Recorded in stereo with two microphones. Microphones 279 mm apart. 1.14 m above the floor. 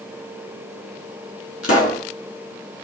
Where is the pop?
55° left (ahead or behind), 2 m.